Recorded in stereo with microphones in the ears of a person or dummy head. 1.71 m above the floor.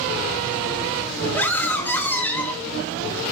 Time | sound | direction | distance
1.3 | a scream | 10° left (ahead or behind) | 3 m